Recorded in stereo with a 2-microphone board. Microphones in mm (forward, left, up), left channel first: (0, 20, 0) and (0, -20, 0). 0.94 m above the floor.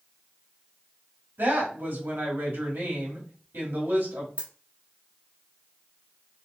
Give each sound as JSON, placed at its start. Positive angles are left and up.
{"t": 1.4, "sound": "a woman speaking", "side_deg": -75, "distance_m": 2.0}
{"t": 4.4, "sound": "a dropped coin", "side_deg": -45, "distance_m": 1.2}